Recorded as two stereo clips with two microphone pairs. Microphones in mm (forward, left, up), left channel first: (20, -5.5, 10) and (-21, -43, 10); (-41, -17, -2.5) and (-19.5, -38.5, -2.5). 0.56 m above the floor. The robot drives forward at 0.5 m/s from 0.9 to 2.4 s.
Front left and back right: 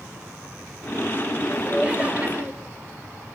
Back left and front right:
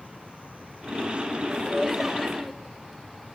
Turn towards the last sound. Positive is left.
turn(degrees=-145)